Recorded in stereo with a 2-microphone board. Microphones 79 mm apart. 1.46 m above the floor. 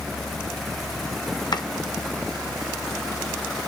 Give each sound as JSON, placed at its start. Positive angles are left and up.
{"t": 1.5, "sound": "chopping", "side_deg": 65, "distance_m": 1.0}